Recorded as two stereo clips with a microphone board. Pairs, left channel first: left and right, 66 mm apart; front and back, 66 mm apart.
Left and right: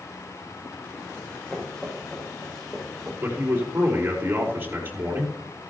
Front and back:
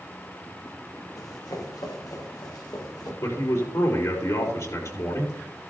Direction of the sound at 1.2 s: 15° left.